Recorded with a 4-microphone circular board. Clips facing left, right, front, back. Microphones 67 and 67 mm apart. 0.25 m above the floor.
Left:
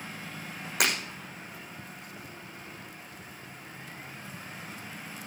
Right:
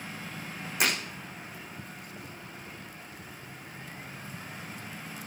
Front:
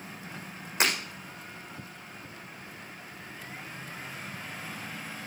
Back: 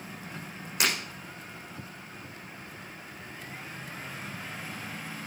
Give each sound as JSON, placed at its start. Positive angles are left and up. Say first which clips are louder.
{"t": 0.8, "sound": "breaking glass", "louder": "even, front 1 dB", "azimuth_deg": 60, "distance_m": 7.5}